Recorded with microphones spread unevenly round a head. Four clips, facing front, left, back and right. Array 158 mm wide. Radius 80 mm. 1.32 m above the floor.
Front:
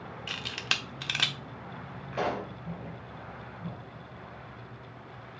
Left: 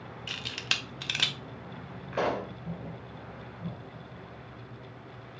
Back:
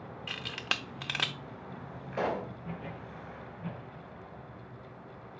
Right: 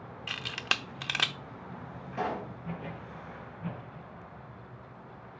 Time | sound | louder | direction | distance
0.3 | a camera shutter | right 4 dB, front 1 dB | 80° right | 0.7 m
2.1 | a pop | left 4 dB, front 1 dB | 100° left | 1.8 m